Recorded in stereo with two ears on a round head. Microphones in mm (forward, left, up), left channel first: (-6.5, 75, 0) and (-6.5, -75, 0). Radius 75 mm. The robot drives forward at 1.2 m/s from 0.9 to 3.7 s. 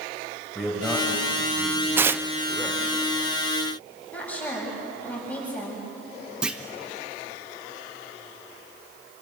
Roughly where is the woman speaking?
Centre.